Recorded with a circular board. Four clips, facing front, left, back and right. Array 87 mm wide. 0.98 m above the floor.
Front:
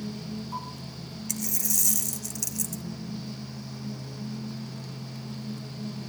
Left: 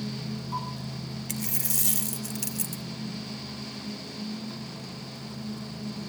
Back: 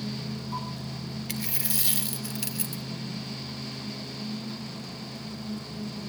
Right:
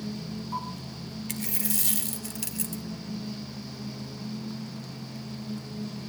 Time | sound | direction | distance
1.3 | a dropped coin | 170° right | 0.6 m